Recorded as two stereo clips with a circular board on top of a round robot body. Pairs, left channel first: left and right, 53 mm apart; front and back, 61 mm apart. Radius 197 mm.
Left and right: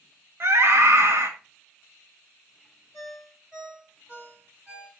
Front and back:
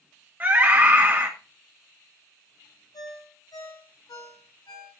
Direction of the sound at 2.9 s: 10° right.